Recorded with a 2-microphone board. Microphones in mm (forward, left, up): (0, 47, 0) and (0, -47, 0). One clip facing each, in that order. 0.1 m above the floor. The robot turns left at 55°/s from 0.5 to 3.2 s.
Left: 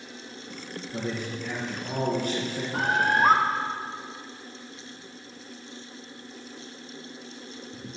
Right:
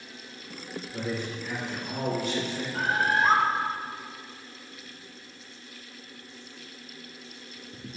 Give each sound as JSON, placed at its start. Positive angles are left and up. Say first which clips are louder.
{"t": 0.9, "sound": "a man speaking", "louder": "left 1 dB", "azimuth_deg": 135, "distance_m": 5.5}
{"t": 2.7, "sound": "a bird", "louder": "left 2 dB", "side_deg": 70, "distance_m": 2.0}